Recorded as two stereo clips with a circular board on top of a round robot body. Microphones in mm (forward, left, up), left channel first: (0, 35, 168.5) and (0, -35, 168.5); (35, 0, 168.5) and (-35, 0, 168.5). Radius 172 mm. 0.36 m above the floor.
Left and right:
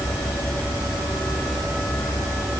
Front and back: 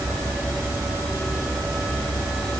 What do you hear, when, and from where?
Only background noise.